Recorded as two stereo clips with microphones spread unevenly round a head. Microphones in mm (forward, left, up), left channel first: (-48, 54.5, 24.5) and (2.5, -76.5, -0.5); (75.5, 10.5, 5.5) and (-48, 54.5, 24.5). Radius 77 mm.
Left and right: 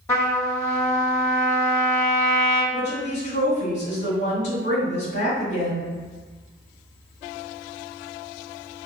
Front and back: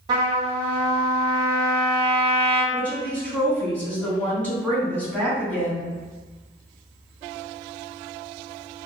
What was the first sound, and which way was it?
A trumpet, 155° left.